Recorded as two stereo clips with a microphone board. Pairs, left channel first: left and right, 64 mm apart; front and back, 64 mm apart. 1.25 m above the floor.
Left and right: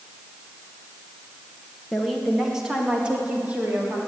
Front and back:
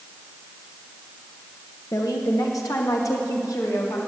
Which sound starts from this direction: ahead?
A woman speaking, at 1.9 s.